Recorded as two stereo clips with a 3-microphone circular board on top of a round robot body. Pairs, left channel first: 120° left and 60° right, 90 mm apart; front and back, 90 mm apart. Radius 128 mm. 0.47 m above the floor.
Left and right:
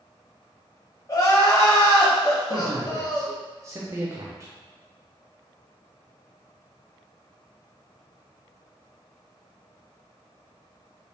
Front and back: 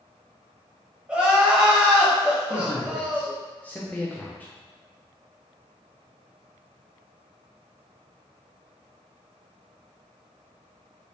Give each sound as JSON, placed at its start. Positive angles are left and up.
{"t": 1.1, "sound": "crying", "azimuth_deg": 105, "distance_m": 1.3}
{"t": 2.5, "sound": "a man speaking", "azimuth_deg": -60, "distance_m": 0.8}